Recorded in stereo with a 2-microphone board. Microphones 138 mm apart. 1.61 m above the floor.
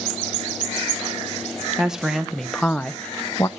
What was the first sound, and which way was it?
A woman speaking, 5° right (ahead or behind).